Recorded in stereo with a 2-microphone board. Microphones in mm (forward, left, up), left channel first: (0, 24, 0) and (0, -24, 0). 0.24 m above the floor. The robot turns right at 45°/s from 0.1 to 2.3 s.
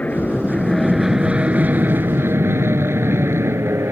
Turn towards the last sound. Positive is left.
turn(degrees=-70)  # may be behind; listen again after turning